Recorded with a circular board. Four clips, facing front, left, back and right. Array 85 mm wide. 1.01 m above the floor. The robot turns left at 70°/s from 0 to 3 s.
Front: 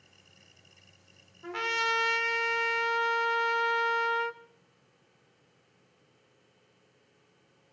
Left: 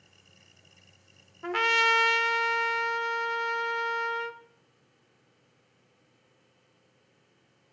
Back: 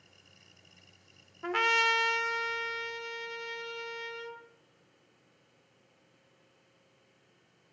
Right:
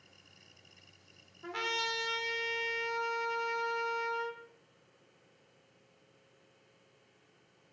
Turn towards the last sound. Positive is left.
turn(degrees=25)